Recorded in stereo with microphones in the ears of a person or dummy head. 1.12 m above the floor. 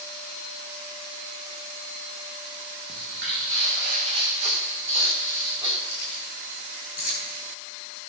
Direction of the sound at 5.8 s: 50° left (ahead or behind).